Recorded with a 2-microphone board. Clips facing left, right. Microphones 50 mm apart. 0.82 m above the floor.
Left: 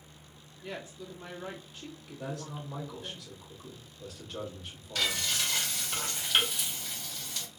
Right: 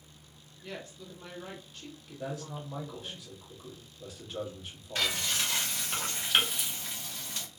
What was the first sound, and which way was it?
A woman speaking, 10° left (ahead or behind).